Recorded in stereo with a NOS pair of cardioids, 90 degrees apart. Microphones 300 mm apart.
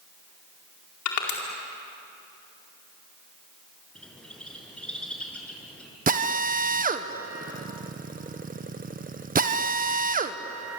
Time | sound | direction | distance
1.1 | crushing | 70° left | 4.5 m
4.0 | a bird | 5° left | 6 m
6.1 | a drill | 30° right | 1.3 m